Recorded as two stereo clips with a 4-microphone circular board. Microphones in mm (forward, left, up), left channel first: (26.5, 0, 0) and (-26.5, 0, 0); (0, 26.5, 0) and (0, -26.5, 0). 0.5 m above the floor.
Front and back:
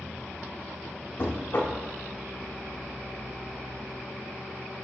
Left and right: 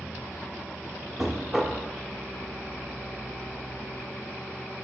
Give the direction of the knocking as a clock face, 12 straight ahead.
12 o'clock.